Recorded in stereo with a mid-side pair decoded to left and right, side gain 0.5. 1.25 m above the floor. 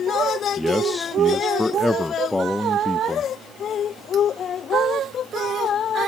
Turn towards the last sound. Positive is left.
turn(degrees=15)